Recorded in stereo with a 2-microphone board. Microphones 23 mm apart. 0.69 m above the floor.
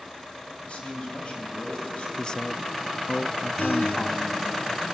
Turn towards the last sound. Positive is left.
turn(degrees=85)